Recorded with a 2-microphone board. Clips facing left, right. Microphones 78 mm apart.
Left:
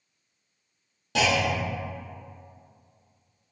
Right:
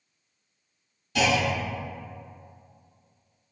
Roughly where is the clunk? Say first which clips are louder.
Even; left.